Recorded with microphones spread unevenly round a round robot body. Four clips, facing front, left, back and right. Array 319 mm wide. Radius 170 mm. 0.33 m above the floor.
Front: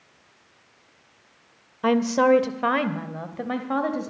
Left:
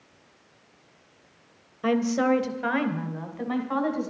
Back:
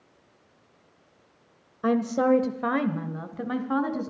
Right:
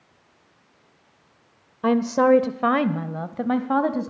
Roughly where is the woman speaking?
Right.